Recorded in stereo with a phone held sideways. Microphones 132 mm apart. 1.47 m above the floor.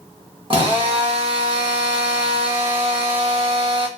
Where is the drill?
40° right (ahead or behind), 1.2 m.